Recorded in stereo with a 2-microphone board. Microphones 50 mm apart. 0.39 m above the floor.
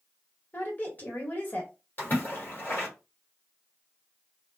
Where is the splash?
45° left (ahead or behind), 1.3 m.